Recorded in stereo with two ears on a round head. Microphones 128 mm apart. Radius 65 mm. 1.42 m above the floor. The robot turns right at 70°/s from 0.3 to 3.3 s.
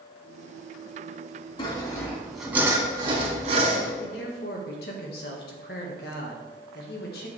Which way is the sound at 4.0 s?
75° left (ahead or behind).